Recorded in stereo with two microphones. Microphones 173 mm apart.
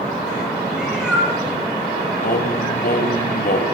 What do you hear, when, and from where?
0.7 s a cat meowing: 5° right (ahead or behind), 9 m
2.2 s singing: 60° left (ahead or behind), 2.5 m